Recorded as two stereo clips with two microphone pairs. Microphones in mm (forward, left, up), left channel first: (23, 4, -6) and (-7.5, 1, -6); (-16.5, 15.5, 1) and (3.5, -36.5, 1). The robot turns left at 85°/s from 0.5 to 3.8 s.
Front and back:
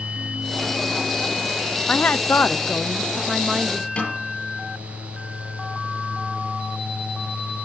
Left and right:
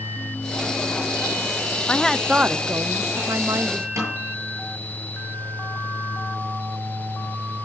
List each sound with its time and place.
1.9 s a woman speaking: 45° left, 0.6 m; by 3.9 s 120° right, 0.6 m
4.0 s a snare drum: 40° right, 8.5 m